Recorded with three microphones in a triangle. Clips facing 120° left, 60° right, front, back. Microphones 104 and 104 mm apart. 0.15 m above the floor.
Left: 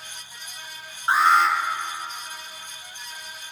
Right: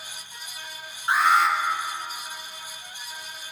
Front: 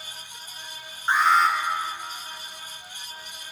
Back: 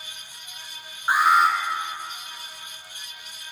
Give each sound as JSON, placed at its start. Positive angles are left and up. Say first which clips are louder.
{"t": 1.1, "sound": "an alarm", "louder": "left 2 dB, back 1 dB", "azimuth_deg": 110, "distance_m": 2.0}